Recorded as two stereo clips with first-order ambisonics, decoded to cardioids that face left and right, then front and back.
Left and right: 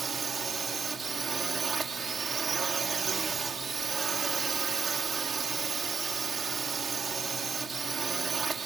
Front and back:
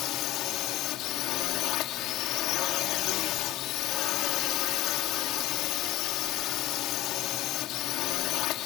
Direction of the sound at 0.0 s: 25° right.